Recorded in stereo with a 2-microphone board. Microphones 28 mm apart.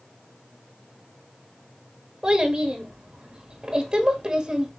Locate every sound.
2.2 s a child speaking: 30° right (ahead or behind), 1.2 m